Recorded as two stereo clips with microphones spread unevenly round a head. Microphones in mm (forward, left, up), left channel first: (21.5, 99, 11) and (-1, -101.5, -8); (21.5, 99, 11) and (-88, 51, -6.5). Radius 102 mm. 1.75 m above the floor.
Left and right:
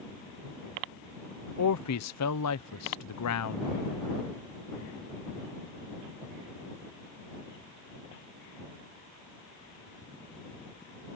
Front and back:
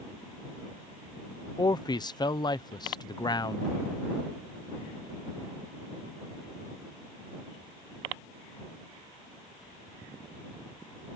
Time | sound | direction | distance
1.6 | a man speaking | 80° left | ?